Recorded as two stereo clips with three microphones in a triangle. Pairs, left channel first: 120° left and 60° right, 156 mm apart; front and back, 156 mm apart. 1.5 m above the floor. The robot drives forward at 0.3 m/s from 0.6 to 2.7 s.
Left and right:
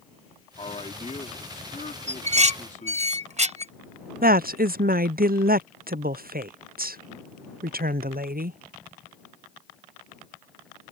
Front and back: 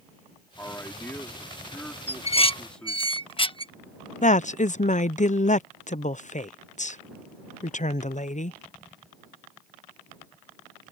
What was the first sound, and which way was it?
A man speaking, 75° left.